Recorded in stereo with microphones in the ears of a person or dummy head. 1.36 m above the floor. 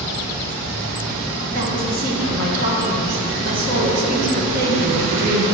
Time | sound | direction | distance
1.5 | a woman speaking | 50° right (ahead or behind) | 1.5 m